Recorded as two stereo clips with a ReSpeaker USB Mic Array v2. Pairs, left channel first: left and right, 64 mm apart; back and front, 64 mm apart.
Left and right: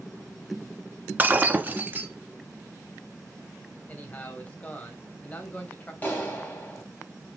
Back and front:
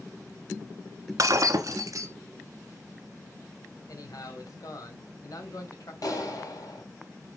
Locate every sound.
1.2 s breaking glass: 30° right, 1.1 m
3.9 s a man speaking: 155° left, 3 m
6.0 s a clap: 155° left, 3.5 m